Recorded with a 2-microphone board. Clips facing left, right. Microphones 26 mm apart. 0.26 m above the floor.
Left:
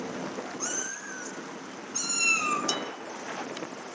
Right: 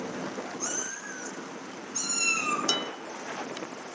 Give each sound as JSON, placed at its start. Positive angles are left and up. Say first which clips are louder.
{"t": 0.6, "sound": "a cat meowing", "louder": "even", "side_deg": 30, "distance_m": 10.0}
{"t": 2.7, "sound": "dishes clattering", "louder": "right 3 dB", "side_deg": -25, "distance_m": 1.1}